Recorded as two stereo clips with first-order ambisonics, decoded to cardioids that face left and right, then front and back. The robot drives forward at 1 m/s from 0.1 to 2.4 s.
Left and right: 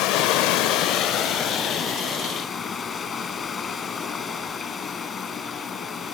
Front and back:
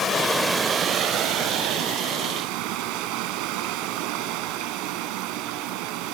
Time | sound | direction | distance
0.0 | running water | 65° left | 0.8 m